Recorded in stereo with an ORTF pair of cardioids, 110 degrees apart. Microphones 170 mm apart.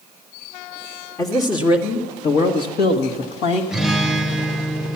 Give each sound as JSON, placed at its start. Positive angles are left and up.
{"t": 1.2, "sound": "a man speaking", "azimuth_deg": 25, "distance_m": 1.4}
{"t": 3.7, "sound": "a guitar", "azimuth_deg": 0, "distance_m": 0.8}